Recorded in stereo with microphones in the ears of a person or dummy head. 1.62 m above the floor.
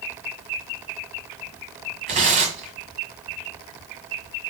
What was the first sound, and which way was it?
Tearing paper, 40° right (ahead or behind).